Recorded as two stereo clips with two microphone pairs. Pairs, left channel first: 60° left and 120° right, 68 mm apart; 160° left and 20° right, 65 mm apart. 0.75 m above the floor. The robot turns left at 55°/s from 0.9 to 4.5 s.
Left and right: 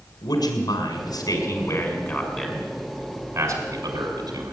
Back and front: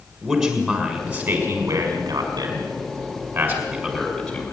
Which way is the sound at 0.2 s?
70° left.